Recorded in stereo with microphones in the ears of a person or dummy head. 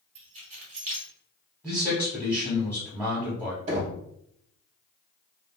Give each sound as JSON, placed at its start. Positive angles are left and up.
{"t": 0.1, "sound": "keys jangling", "side_deg": -35, "distance_m": 0.9}
{"t": 1.6, "sound": "a man speaking", "side_deg": -5, "distance_m": 0.9}
{"t": 3.7, "sound": "knocking", "side_deg": -35, "distance_m": 0.9}